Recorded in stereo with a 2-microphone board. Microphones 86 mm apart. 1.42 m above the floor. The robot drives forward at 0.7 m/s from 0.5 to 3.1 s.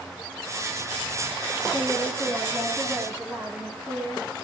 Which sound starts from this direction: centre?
A woman speaking, at 1.7 s.